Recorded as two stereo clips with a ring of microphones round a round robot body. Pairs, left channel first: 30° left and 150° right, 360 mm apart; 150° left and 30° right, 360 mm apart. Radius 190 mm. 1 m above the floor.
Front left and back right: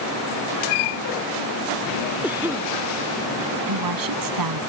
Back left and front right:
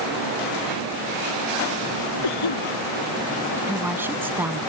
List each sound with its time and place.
2.2 s a cough: 125° left
3.7 s a woman speaking: 115° right